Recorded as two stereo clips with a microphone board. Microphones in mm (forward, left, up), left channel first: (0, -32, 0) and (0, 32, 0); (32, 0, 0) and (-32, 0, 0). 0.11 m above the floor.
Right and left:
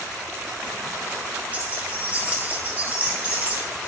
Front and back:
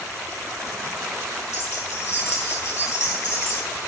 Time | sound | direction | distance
1.5 | keys jangling | 25° left | 1.7 m